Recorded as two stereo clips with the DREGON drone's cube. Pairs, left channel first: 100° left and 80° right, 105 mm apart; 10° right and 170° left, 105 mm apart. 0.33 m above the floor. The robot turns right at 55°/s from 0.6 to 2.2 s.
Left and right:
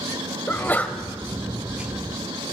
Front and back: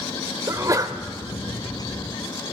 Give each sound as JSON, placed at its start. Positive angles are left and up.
{"t": 0.5, "sound": "a sneeze", "azimuth_deg": 145, "distance_m": 1.0}